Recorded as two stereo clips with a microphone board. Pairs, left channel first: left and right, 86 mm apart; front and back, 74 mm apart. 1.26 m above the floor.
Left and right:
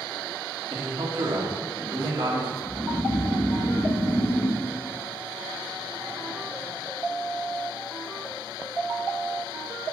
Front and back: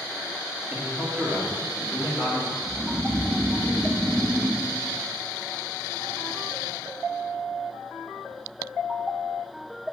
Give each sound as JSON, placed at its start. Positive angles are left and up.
{"t": 0.7, "sound": "a man speaking", "azimuth_deg": -105, "distance_m": 2.5}
{"t": 2.6, "sound": "snoring", "azimuth_deg": 140, "distance_m": 1.0}